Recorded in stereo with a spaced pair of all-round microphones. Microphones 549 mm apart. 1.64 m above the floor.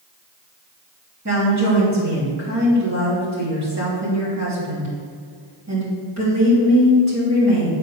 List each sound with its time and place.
1.2 s a woman speaking: 30° right (ahead or behind), 3 m